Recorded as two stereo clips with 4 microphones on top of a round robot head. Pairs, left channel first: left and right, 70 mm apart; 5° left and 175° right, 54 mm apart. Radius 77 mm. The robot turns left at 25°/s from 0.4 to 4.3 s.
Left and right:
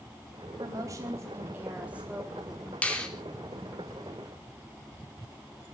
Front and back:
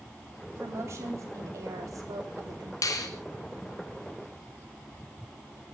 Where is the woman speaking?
130° right, 3.5 m; by 2.7 s straight behind, 3.5 m.